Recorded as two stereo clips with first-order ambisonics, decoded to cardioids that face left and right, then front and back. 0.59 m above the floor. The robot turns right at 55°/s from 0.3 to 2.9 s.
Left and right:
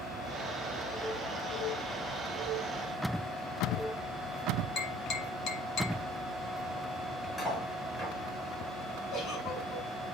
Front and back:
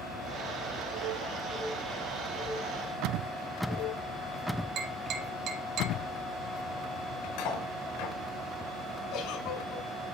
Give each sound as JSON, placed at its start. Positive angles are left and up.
{"t": 4.8, "sound": "tapping", "azimuth_deg": 135, "distance_m": 3.0}
{"t": 7.4, "sound": "cutlery clinking", "azimuth_deg": 10, "distance_m": 6.0}
{"t": 9.1, "sound": "a giggle", "azimuth_deg": 30, "distance_m": 5.5}